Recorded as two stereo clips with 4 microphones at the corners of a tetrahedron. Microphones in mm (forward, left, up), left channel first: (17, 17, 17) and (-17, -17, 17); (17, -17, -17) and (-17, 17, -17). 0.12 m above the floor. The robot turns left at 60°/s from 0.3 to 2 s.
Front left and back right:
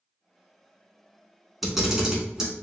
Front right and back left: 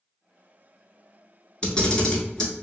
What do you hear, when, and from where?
1.6 s a camera shutter: 60° right, 0.8 m; by 2.6 s 80° right, 0.8 m